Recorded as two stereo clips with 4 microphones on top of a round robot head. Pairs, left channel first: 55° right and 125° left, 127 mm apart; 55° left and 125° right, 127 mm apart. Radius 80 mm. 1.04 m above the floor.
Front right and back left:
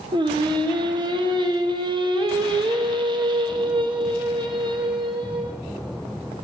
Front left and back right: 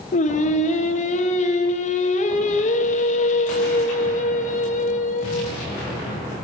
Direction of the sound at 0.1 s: 75° left.